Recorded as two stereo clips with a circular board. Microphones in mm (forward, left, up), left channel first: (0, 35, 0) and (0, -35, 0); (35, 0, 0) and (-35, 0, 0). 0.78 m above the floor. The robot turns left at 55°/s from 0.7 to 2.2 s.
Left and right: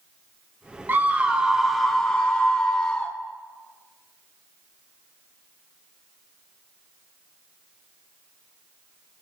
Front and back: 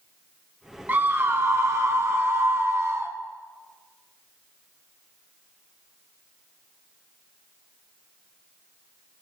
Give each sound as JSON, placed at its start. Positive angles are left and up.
{"t": 0.9, "sound": "a scream", "azimuth_deg": -130, "distance_m": 0.9}